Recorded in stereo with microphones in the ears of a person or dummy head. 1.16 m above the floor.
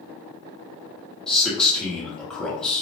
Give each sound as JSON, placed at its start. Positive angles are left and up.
{"t": 1.3, "sound": "a man speaking", "side_deg": 5, "distance_m": 1.0}